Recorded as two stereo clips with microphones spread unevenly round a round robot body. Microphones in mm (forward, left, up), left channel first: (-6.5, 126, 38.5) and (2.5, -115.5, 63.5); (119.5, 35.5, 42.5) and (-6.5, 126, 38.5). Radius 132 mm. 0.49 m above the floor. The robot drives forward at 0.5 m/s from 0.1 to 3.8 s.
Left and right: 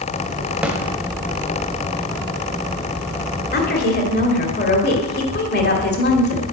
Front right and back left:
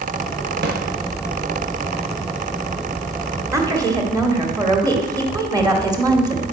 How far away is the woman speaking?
About 1.7 m.